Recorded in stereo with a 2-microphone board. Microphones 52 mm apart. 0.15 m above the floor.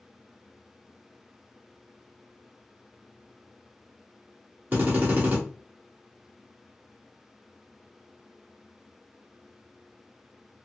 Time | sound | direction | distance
4.7 | a drill | 40° right (ahead or behind) | 1.8 m